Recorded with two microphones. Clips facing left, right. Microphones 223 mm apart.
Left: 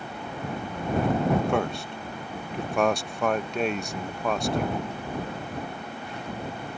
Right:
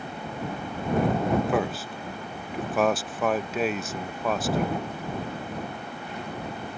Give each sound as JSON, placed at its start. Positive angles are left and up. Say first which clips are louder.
{"t": 1.5, "sound": "a man speaking", "louder": "even", "side_deg": -5}